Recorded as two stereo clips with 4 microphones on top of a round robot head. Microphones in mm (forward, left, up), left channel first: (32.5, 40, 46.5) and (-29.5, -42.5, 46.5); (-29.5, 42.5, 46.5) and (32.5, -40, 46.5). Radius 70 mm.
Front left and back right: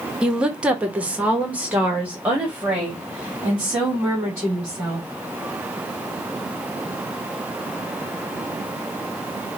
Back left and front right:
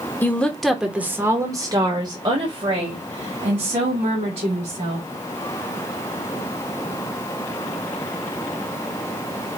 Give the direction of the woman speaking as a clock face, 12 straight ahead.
7 o'clock.